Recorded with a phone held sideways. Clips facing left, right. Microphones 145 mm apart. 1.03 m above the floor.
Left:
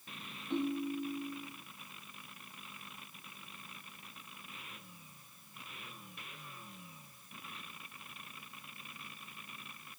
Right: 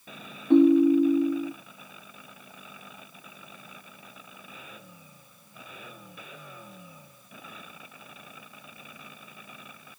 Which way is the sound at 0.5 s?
60° right (ahead or behind).